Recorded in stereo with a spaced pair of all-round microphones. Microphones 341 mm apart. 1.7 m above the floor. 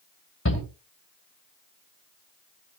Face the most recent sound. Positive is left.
turn(degrees=45)  # may be behind; listen again after turning